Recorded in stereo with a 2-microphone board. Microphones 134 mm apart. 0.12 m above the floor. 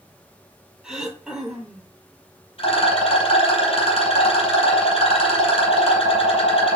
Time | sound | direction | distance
0.8 | throat clearing | 5° right (ahead or behind) | 0.7 m
2.6 | a rattle | 45° left (ahead or behind) | 2.5 m